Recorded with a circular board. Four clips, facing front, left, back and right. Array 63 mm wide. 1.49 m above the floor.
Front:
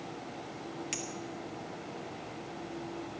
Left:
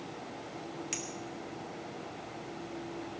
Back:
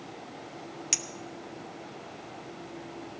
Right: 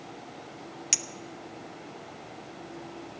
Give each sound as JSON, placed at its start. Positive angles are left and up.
{"t": 0.9, "sound": "a clink", "azimuth_deg": -125, "distance_m": 0.8}